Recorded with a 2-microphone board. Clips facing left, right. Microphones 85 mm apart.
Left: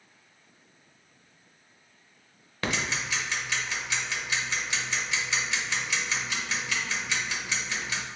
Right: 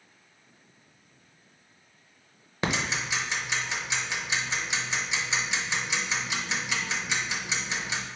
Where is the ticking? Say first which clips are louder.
Right 1 dB; 20° right (ahead or behind), 0.6 m.